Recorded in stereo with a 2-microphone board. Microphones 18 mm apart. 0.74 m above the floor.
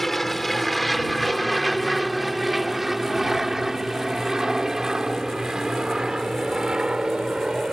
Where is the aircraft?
15° left (ahead or behind); by 7.7 s 50° right (ahead or behind).